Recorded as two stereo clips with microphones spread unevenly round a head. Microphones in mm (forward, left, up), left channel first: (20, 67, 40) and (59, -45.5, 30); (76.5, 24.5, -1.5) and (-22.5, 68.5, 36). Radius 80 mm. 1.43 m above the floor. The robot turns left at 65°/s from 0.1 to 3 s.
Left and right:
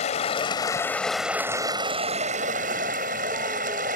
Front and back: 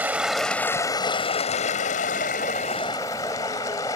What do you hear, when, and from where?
0.0 s running water: 90° left; by 4.0 s 100° right